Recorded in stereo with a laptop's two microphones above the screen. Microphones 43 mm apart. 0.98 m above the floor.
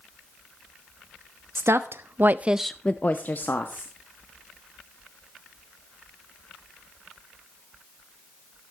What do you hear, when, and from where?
1.6 s a woman speaking: 80° right, 1.2 m; by 3.9 s 60° left (ahead or behind), 1.5 m